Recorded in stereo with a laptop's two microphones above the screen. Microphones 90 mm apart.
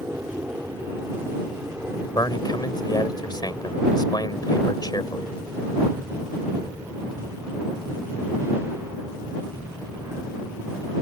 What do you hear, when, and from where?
0.0 s an aircraft: 20° right (ahead or behind); by 11.0 s 30° right (ahead or behind)
2.1 s a man speaking: 50° left (ahead or behind)